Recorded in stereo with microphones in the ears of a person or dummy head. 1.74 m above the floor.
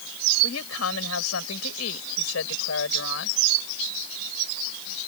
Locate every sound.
0.4 s a woman speaking: 75° left (ahead or behind); by 3.4 s 85° left